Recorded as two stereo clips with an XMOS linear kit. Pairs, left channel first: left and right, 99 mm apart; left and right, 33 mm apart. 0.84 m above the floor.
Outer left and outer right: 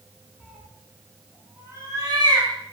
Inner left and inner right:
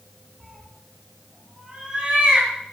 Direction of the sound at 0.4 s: 5° left (ahead or behind).